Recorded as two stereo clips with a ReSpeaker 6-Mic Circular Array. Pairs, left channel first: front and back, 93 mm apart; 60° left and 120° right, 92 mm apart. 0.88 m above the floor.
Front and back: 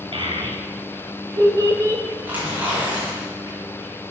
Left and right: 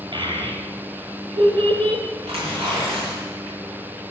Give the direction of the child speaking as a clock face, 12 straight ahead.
5 o'clock.